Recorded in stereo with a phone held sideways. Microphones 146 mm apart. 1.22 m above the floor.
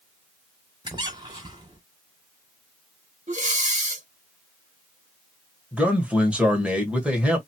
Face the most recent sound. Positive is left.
turn(degrees=-10)  # may be behind; listen again after turning